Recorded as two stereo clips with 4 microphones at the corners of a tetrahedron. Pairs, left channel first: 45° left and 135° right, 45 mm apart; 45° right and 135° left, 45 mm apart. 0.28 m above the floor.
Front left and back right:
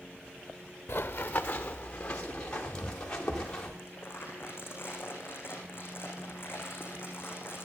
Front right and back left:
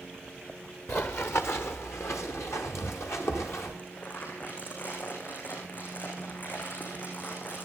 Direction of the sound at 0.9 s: Straight ahead.